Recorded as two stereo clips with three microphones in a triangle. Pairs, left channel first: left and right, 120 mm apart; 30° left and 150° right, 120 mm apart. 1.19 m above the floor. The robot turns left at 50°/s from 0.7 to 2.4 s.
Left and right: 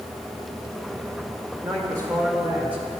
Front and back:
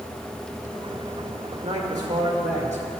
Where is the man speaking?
125° right, 2 m; by 2.9 s 165° right, 2 m.